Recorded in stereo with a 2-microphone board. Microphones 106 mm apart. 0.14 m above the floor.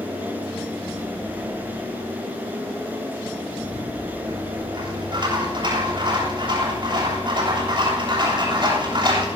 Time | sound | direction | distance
3.6 | a rattle | 50° right (ahead or behind) | 8.5 m